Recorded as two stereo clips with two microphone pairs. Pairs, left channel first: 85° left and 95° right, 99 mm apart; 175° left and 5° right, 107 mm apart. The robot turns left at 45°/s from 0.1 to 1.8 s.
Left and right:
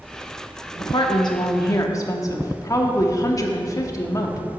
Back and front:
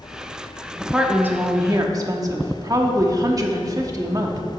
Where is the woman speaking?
85° left, 0.9 m; by 4.4 s 40° left, 0.9 m.